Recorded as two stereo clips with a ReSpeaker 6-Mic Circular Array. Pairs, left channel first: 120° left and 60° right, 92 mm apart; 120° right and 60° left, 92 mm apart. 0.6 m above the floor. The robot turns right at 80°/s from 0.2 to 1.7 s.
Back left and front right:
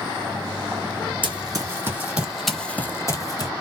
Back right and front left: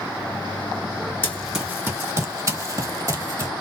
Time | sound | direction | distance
1.2 | running footsteps | 55° right | 1.2 m